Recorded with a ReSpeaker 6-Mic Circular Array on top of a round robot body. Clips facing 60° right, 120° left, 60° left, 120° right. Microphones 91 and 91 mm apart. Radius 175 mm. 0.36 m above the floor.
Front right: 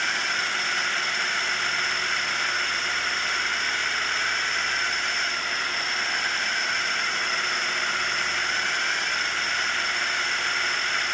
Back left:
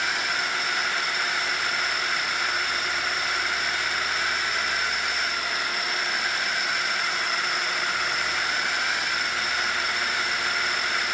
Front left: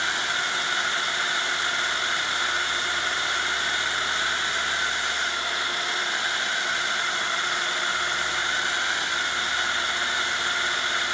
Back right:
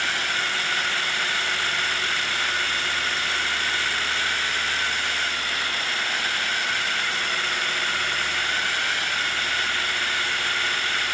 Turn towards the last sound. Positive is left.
turn(degrees=45)